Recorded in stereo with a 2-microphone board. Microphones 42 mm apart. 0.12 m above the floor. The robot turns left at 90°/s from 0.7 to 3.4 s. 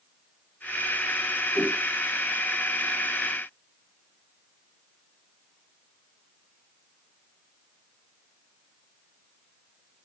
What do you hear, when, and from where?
1.6 s a whoosh: 90° left, 7 m; by 1.8 s 70° left (ahead or behind), 7 m